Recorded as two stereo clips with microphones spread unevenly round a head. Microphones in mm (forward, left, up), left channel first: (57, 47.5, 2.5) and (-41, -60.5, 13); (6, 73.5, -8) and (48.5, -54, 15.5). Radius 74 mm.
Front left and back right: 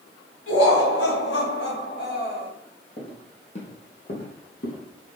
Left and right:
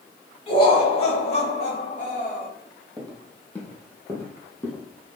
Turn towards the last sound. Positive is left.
turn(degrees=40)